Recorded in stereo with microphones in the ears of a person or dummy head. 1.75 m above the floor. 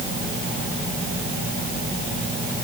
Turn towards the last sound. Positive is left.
No sound to turn to.